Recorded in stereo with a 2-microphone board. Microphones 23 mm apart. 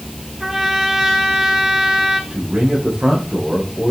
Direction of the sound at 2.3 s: 60° right (ahead or behind).